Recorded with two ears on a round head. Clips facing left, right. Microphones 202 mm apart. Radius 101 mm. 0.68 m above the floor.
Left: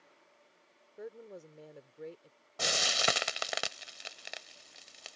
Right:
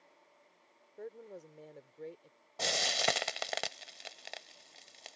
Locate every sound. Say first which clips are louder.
1.0 s a woman speaking: left 1 dB; 5° left (ahead or behind)
2.6 s frying: even; 5° left (ahead or behind)